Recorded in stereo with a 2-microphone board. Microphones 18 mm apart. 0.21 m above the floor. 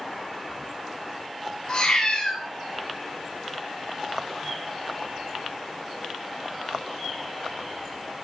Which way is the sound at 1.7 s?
55° left (ahead or behind).